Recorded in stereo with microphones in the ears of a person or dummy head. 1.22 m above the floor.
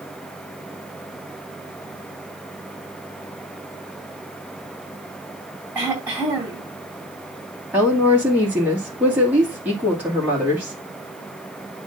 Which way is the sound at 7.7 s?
10° right (ahead or behind).